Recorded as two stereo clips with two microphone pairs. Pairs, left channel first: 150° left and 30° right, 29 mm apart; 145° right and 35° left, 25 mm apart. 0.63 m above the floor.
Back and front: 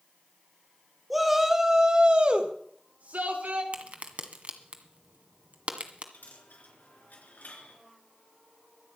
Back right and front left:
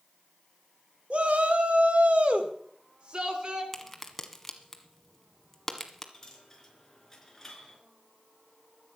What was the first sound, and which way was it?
A shout, 55° left.